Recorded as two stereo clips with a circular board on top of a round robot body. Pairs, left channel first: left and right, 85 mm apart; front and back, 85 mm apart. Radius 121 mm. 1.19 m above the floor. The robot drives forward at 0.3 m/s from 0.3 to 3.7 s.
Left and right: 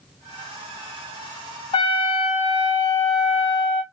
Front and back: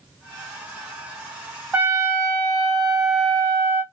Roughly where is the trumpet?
Left.